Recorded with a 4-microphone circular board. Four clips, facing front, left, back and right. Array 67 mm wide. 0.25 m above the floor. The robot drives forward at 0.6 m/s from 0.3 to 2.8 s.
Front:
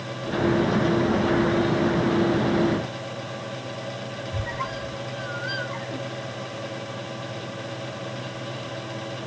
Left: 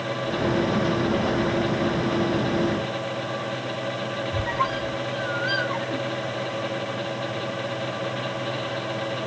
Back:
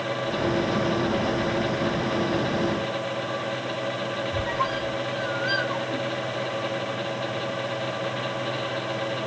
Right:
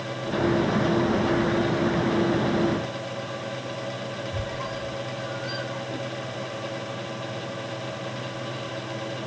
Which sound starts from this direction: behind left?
A squeak, at 4.3 s.